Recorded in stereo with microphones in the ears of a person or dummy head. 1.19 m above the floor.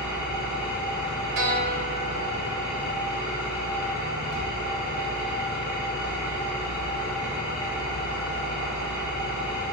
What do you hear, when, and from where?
0.0 s an engine running: 5° right (ahead or behind), 1.0 m
1.4 s a guitar: 50° right (ahead or behind), 0.7 m